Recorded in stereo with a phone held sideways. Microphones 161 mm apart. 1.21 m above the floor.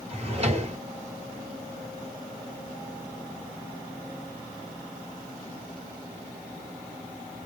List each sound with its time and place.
0.1 s a drawer: 40° right (ahead or behind), 1.5 m